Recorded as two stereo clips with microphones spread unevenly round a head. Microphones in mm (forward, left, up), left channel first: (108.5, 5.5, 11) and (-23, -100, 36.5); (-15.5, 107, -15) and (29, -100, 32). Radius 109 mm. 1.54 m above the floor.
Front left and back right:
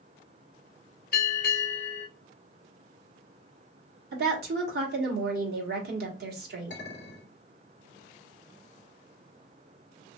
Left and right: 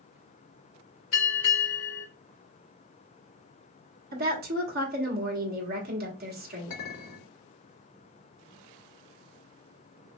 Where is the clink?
95° left, 2.5 m.